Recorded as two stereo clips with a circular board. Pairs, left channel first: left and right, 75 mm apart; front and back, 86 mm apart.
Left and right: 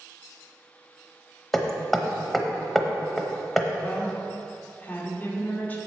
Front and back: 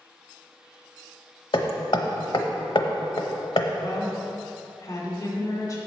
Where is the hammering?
5° left, 0.8 m.